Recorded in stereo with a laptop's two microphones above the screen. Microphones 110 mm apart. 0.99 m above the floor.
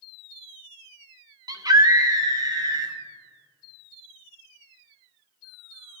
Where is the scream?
35° right (ahead or behind), 0.8 m.